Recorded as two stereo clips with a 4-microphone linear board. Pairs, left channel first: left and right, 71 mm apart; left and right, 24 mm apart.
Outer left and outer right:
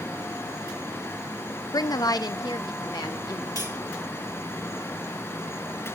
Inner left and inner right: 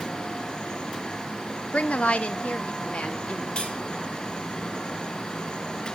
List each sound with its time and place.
1.7 s a woman speaking: 65° left (ahead or behind), 0.5 m; by 3.5 s 75° left (ahead or behind), 1.9 m
3.5 s cutlery clinking: 55° left (ahead or behind), 2 m